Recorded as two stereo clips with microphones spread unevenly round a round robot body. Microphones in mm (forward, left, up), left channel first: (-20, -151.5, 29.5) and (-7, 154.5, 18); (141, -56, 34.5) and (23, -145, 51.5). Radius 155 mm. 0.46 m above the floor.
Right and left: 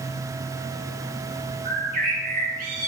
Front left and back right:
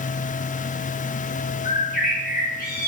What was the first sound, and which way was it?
A bird, 25° left.